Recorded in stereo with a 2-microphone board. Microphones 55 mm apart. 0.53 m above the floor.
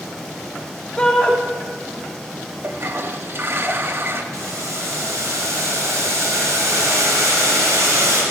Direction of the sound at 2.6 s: 45° right (ahead or behind).